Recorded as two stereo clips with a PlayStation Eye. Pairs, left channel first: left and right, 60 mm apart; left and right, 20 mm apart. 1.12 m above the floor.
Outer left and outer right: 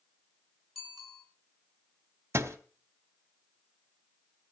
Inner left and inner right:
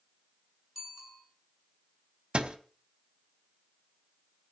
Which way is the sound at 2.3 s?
45° right (ahead or behind).